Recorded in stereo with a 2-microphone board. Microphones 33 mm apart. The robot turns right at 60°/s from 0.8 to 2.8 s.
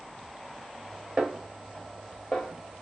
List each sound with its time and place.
1.2 s a snare drum: 25° right (ahead or behind), 1.4 m; by 2.5 s 30° left (ahead or behind), 1.4 m